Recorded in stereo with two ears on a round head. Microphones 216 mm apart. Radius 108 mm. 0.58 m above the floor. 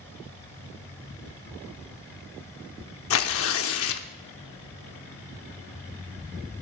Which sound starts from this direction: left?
Tearing paper, at 3.1 s.